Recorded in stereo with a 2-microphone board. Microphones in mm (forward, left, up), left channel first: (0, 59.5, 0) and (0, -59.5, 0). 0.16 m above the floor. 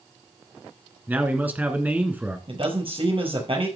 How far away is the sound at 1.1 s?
About 1.8 m.